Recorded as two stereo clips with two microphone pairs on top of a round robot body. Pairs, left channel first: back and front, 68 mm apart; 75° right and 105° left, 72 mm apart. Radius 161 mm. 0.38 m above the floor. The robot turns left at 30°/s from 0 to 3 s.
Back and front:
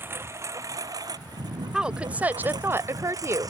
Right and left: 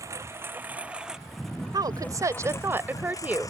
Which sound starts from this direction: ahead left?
A lawn mower, at 0.0 s.